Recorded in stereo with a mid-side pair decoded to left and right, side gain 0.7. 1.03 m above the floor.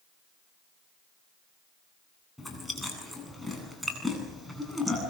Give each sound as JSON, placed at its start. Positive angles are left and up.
{"t": 2.4, "sound": "chewing", "azimuth_deg": 5, "distance_m": 9.0}